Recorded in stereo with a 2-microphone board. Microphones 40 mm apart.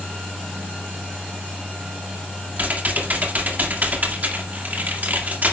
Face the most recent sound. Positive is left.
turn(degrees=-50)  # may be behind; listen again after turning